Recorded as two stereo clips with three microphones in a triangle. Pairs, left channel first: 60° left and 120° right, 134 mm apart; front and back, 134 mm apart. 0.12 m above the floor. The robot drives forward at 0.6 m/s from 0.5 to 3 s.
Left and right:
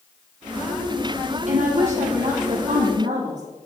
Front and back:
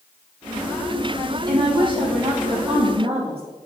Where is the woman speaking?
130° right, 3.5 m; by 3.4 s 140° right, 4 m.